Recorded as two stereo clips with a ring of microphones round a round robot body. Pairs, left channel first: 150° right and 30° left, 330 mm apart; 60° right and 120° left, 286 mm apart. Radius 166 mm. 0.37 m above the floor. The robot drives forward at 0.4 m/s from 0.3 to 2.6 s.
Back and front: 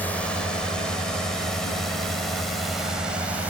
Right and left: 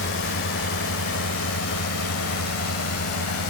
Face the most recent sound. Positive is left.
turn(degrees=-55)